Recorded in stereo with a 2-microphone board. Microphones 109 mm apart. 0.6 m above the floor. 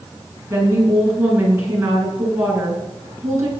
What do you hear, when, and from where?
0.5 s a woman speaking: 25° right (ahead or behind), 7 m